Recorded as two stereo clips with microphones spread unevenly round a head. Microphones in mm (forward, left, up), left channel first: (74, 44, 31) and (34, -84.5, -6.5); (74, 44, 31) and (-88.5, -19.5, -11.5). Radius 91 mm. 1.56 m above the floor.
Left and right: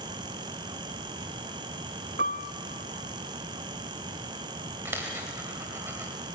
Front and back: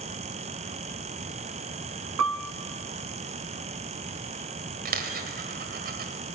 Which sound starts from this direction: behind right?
A piano, at 2.2 s.